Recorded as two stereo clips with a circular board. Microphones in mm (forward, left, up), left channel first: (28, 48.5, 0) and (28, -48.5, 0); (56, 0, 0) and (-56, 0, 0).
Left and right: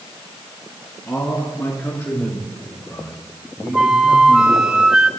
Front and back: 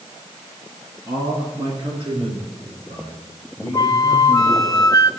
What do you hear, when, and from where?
1.1 s a man speaking: 130° left, 2 m; by 4.7 s 170° left, 7 m
3.7 s a flute: 10° right, 0.7 m